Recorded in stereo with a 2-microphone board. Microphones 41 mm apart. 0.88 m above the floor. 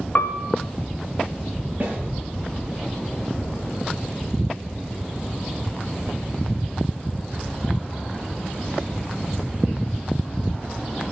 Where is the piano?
50° left (ahead or behind), 1.2 m.